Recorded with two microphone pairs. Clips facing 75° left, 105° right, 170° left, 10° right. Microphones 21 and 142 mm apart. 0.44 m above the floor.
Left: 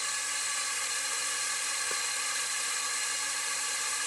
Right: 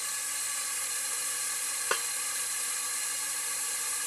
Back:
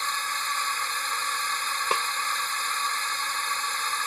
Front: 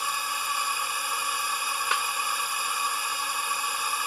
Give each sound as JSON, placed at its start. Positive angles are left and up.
{"t": 0.0, "sound": "a drone", "azimuth_deg": 50}
{"t": 1.9, "sound": "a snare drum", "azimuth_deg": -140}